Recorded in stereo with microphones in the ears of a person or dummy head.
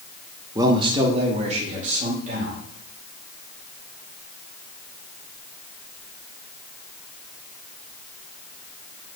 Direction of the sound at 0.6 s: 20° right (ahead or behind).